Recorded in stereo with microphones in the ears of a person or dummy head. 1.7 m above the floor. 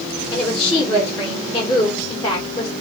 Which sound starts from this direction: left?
A woman speaking, at 0.3 s.